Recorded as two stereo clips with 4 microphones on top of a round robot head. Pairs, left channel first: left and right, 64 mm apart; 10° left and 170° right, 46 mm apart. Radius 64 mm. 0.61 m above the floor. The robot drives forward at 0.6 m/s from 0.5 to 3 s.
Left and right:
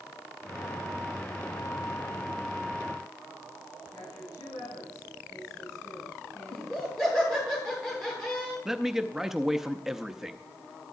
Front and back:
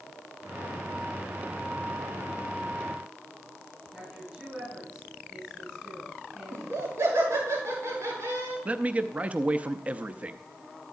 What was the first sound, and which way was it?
A woman speaking, 120° left.